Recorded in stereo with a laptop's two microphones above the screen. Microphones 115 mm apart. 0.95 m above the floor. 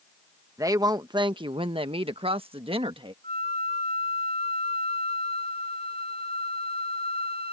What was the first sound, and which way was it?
A woman speaking, 30° right (ahead or behind).